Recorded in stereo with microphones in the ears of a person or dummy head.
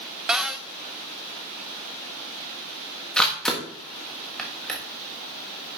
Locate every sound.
0.3 s a cupboard door: 5° right (ahead or behind), 0.7 m
3.2 s a camera shutter: centre (ahead or behind), 1.5 m